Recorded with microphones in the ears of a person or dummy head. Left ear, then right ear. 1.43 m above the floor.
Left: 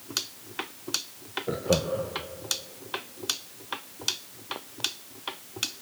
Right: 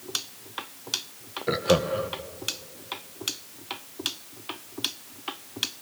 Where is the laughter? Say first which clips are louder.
Right 4 dB; 60° right (ahead or behind), 1.3 m.